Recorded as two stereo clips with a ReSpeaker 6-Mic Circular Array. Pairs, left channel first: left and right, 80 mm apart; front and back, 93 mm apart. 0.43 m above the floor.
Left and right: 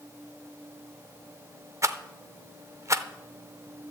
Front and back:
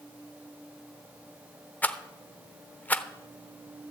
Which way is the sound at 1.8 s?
65° right.